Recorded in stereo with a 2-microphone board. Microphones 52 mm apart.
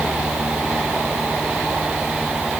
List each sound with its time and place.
Only background noise.